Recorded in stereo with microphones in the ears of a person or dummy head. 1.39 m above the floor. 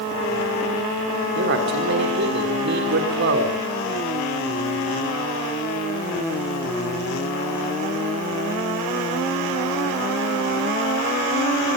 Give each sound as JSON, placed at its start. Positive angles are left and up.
{"t": 1.4, "sound": "a man speaking", "side_deg": -60, "distance_m": 3.5}